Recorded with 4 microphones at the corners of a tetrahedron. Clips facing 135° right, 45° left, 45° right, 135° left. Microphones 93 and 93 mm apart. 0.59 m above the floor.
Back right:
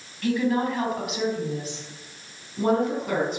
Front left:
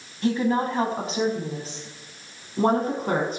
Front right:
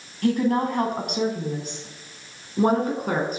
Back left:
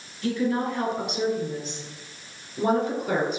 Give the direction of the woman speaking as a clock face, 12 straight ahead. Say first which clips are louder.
Front left 1 dB, front right 4 dB; 1 o'clock.